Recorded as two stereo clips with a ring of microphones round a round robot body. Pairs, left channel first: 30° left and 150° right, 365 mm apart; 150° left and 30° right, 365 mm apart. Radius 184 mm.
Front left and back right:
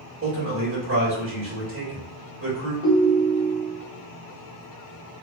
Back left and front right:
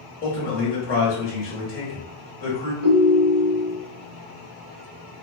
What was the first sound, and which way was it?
A man speaking, 165° right.